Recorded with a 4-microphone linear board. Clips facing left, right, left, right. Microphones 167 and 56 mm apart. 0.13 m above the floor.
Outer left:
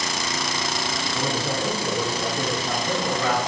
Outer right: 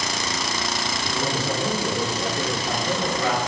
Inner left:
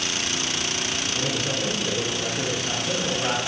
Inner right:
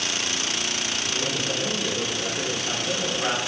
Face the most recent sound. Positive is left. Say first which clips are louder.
# outer right 1 dB, even
turn(degrees=-35)  # may be behind; listen again after turning